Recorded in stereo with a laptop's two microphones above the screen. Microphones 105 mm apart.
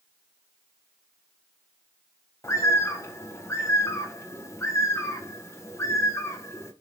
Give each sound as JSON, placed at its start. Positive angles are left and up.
{"t": 2.4, "sound": "a bird", "side_deg": 30, "distance_m": 0.8}